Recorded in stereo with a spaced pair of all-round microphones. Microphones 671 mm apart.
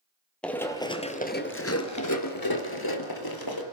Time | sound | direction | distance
0.4 | running footsteps | centre (ahead or behind) | 2.0 m